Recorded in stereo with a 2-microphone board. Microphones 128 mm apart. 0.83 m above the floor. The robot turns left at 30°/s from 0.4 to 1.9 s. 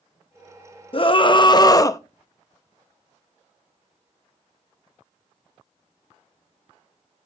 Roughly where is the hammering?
No hammering in this recording.